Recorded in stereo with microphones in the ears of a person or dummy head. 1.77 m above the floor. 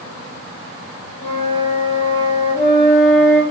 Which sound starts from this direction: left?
A flute, at 1.2 s.